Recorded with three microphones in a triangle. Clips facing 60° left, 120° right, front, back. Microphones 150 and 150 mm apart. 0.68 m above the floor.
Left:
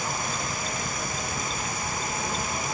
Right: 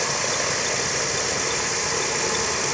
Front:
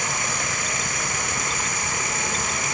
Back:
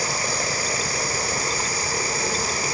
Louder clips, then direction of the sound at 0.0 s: Right 5 dB, back 3 dB; 125° right.